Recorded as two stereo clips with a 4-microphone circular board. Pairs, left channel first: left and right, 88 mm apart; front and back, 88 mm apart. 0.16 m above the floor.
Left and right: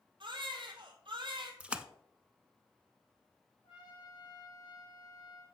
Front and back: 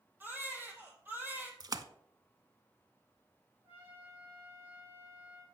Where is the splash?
165° right, 0.5 m.